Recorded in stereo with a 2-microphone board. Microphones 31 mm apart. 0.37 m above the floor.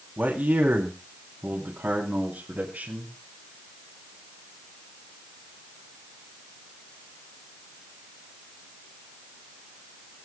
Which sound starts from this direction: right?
A man speaking, at 0.2 s.